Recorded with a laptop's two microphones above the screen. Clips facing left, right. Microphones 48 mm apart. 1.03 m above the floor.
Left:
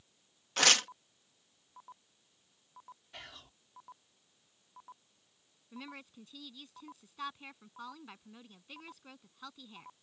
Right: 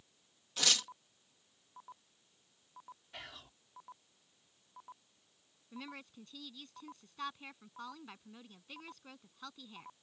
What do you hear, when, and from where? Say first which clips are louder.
0.6 s tearing paper: left 7 dB; 60° left (ahead or behind)
3.1 s whispering: right 1 dB; centre (ahead or behind)
5.7 s a woman speaking: even; centre (ahead or behind)